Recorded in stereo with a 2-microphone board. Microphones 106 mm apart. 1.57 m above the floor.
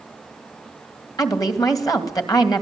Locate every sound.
1.2 s a woman speaking: 35° left (ahead or behind), 2.5 m